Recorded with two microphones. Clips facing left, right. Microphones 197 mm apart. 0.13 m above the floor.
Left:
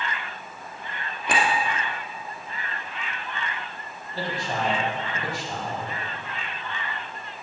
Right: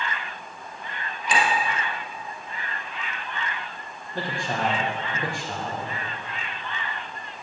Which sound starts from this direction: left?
A clink, at 1.3 s.